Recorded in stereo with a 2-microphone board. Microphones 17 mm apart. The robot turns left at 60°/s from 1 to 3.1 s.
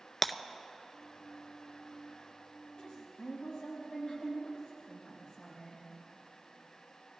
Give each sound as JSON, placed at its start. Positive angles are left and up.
{"t": 0.2, "sound": "breaking glass", "side_deg": 10, "distance_m": 0.5}
{"t": 2.8, "sound": "a woman speaking", "side_deg": 70, "distance_m": 5.5}